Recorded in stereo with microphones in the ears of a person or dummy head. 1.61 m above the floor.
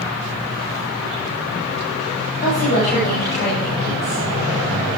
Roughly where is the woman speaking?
Left.